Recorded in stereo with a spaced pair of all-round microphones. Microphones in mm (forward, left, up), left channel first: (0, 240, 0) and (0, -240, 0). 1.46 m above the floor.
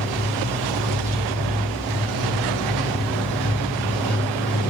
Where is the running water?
15° right (ahead or behind), 1.6 m.